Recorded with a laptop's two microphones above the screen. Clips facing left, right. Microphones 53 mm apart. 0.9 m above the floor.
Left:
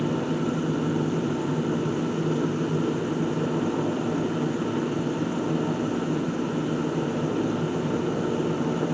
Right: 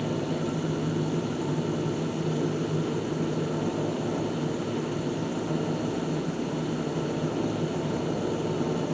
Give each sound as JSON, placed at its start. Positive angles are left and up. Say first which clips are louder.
{"t": 0.0, "sound": "a machine running", "louder": "left 3 dB", "side_deg": 35, "distance_m": 2.5}